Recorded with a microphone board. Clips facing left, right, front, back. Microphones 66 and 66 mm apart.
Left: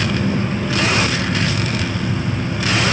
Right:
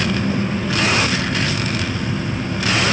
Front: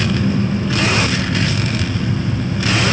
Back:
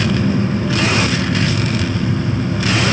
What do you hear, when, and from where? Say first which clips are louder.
0.0 s an engine running: even, back 1 dB; straight behind, 4 m